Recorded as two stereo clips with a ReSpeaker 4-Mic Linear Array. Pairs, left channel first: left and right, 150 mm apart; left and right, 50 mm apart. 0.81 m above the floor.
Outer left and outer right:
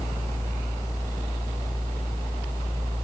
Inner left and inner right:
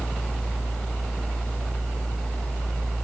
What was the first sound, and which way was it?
Only background noise.